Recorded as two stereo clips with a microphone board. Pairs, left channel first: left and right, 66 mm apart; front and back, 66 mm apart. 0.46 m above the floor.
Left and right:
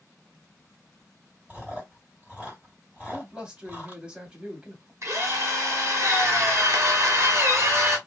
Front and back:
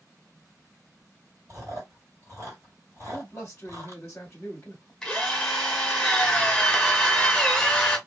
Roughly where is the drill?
Right.